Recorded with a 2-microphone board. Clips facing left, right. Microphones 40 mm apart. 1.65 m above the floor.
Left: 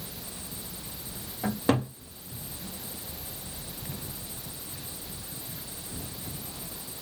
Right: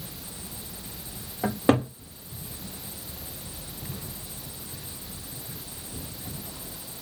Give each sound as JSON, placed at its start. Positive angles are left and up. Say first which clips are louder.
{"t": 1.4, "sound": "a cupboard door", "louder": "right 4 dB", "side_deg": -30, "distance_m": 1.5}